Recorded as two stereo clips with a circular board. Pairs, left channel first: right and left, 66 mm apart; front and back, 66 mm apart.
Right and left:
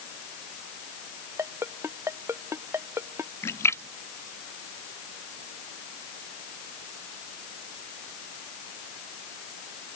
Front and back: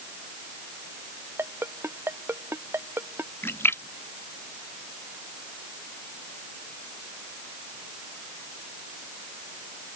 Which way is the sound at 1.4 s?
130° left.